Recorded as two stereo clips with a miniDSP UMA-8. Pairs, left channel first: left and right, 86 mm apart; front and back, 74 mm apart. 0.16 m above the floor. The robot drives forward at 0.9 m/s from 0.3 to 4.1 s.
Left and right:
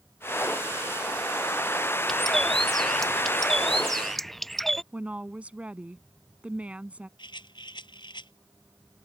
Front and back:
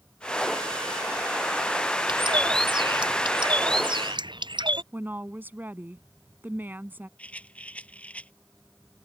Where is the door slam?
I don't hear a door slam.